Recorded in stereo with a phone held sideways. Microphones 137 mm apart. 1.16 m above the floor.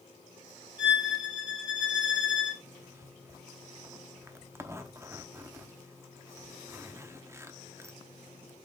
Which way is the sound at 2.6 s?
20° right (ahead or behind).